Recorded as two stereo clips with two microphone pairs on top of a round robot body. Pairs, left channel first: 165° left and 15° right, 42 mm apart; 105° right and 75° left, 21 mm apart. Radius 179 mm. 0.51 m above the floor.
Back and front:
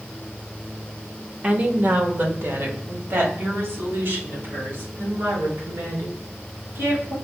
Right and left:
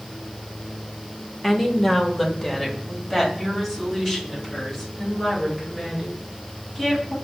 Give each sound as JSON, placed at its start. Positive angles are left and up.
{"t": 1.4, "sound": "a woman speaking", "azimuth_deg": -40, "distance_m": 1.1}